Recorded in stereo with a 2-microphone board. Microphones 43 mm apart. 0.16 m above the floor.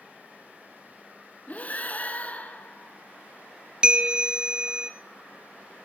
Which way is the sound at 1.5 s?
35° left (ahead or behind).